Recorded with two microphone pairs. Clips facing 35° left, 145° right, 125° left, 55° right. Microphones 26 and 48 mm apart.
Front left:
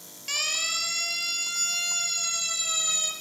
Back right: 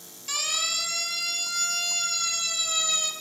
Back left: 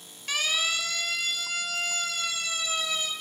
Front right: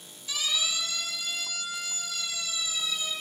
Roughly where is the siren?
Left.